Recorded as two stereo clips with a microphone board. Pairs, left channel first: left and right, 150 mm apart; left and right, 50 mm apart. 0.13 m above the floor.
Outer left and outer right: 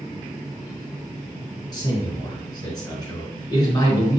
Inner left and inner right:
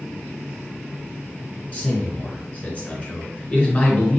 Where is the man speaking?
25° left (ahead or behind), 1.5 m.